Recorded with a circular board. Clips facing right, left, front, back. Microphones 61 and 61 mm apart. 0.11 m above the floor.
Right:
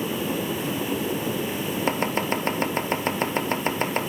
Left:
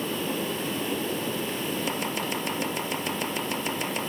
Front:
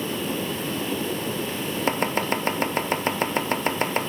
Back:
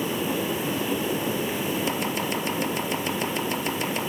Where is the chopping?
45° right, 0.9 m.